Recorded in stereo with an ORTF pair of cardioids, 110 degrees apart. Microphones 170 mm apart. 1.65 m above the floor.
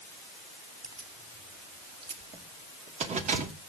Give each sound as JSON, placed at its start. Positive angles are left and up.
{"t": 0.8, "sound": "keys jangling", "azimuth_deg": -25, "distance_m": 3.0}